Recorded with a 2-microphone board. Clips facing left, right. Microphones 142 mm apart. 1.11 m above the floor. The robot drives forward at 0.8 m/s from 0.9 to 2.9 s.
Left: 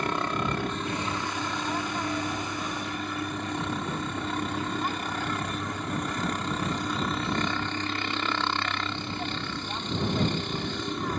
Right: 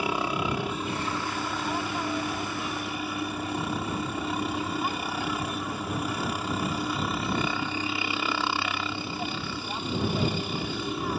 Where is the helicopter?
10° right (ahead or behind); by 11.2 s 5° right (ahead or behind).